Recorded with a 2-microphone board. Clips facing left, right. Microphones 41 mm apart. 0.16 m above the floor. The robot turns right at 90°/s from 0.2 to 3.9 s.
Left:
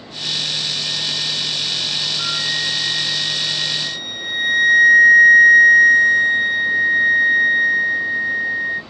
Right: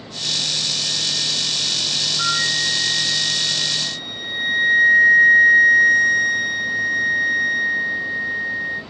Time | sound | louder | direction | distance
2.2 | a flute | right 4 dB | 20° right | 1.2 m